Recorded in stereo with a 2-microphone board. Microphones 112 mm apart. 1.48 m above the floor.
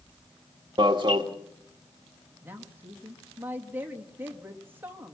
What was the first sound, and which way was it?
An alarm, 45° right (ahead or behind).